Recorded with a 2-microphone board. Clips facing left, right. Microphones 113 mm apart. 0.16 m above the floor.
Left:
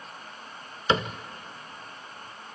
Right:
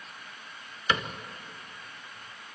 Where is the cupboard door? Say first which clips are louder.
Left 4 dB; 30° left (ahead or behind), 0.8 m.